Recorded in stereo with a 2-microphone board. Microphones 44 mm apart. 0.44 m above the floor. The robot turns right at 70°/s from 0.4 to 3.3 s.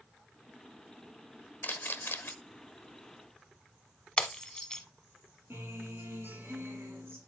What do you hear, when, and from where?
1.6 s a camera shutter: 50° left (ahead or behind), 1.1 m; by 2.3 s 55° left (ahead or behind), 1.1 m
4.2 s breaking glass: 20° left (ahead or behind), 0.9 m
5.5 s a guitar: 70° right (ahead or behind), 4 m